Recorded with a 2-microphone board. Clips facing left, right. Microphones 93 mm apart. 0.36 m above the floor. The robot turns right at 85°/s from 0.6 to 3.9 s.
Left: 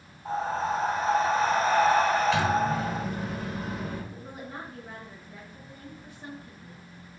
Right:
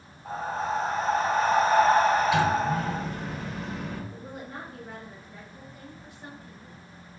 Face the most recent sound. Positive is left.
turn(degrees=25)  # may be behind; listen again after turning